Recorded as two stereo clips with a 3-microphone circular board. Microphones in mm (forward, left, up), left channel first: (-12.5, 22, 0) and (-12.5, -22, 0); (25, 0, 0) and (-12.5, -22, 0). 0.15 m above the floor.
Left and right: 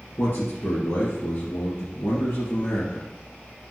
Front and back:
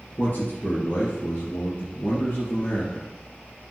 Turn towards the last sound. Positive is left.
turn(degrees=70)